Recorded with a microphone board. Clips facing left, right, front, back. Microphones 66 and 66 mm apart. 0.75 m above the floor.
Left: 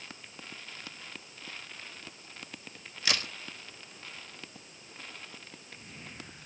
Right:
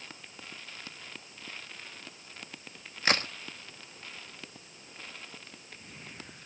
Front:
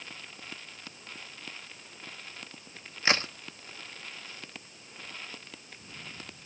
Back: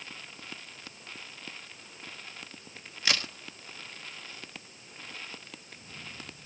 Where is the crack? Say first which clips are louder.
Right 5 dB, front 4 dB; 50° right, 1.2 m.